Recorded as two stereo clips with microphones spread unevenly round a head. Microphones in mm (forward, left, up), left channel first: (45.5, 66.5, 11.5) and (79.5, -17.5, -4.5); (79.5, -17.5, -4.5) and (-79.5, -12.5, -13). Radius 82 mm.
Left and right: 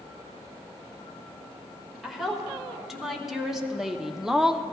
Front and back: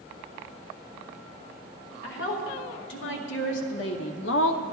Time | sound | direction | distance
2.0 | a woman speaking | 20° left | 2 m